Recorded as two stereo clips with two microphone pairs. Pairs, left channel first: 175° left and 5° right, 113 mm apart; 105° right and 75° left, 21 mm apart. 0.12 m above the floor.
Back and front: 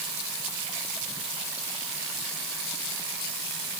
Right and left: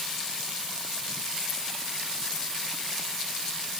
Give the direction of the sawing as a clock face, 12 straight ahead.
No sawing in this recording.